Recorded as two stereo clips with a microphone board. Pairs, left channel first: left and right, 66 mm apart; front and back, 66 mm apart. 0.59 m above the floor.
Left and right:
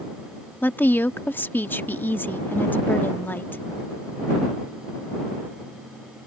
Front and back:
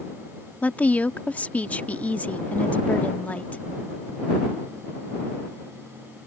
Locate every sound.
0.6 s a woman speaking: 50° left